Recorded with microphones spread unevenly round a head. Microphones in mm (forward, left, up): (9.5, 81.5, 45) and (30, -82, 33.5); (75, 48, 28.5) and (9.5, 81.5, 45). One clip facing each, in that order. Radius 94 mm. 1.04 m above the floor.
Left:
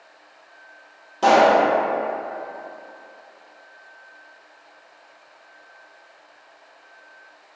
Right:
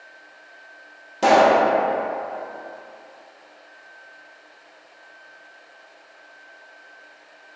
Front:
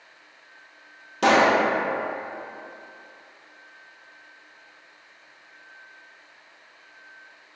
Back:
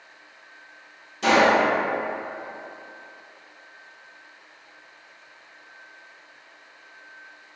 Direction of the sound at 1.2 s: 5° right.